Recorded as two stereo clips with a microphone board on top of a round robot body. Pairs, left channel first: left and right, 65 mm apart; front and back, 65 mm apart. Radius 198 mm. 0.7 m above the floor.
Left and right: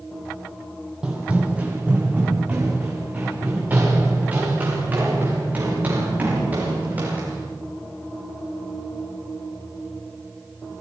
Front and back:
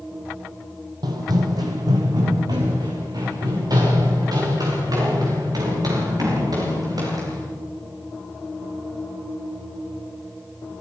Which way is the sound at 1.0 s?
170° right.